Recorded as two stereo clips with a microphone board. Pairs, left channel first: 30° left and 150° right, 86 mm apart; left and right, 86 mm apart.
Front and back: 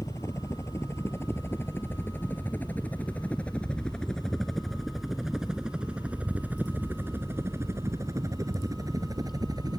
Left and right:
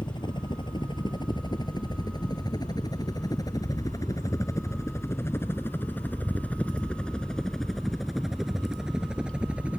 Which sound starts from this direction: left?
A helicopter, at 0.0 s.